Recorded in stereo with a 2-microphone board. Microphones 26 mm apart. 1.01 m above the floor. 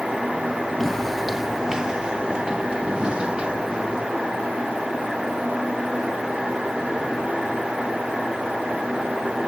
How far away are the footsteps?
About 1.0 m.